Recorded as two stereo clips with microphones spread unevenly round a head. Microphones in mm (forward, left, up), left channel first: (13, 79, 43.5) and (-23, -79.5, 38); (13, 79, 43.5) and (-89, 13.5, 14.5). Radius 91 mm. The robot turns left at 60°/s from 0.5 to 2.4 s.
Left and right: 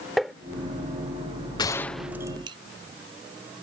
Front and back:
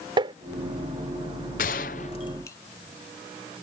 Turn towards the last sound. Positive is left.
turn(degrees=-35)